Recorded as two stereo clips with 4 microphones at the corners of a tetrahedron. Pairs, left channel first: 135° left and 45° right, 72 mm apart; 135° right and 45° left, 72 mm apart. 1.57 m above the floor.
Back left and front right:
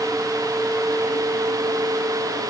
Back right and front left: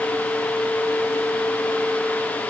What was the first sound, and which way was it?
Only background noise.